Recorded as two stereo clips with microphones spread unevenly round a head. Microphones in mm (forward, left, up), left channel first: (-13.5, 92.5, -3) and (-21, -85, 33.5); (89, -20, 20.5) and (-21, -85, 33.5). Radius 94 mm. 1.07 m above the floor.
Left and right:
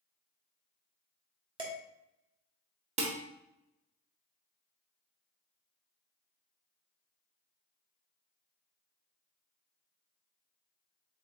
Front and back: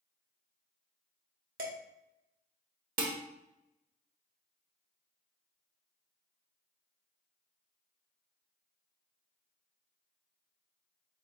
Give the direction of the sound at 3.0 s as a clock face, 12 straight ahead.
5 o'clock.